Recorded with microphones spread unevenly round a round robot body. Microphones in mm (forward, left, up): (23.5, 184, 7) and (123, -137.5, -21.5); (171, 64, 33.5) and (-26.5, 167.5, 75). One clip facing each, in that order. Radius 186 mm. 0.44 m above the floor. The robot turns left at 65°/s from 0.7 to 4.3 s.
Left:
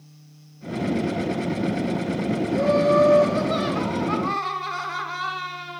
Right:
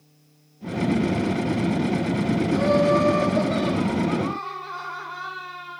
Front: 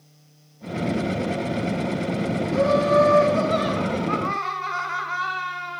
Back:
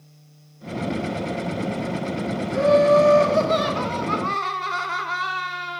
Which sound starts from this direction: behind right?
Laughter, at 2.5 s.